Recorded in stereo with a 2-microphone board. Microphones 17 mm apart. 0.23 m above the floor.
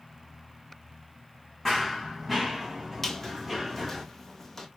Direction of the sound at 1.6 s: 5° left (ahead or behind).